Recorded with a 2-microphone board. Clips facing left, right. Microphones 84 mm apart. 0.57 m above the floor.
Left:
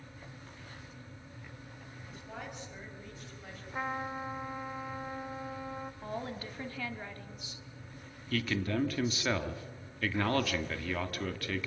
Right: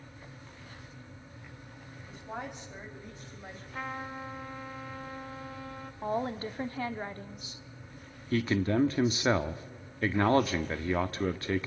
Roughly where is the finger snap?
I don't hear a finger snap.